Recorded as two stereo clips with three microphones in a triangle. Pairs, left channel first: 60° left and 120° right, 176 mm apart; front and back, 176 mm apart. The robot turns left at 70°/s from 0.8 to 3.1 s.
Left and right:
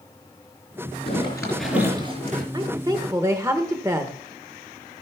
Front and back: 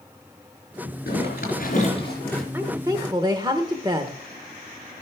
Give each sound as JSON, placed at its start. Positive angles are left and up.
{"t": 1.1, "sound": "a zipper", "azimuth_deg": 10, "distance_m": 3.5}
{"t": 2.5, "sound": "a woman speaking", "azimuth_deg": -120, "distance_m": 0.8}